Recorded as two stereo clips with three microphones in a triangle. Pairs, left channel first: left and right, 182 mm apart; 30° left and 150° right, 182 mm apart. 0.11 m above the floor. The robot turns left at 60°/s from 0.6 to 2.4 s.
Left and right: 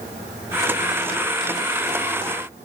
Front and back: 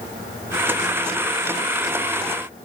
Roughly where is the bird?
I don't hear a bird.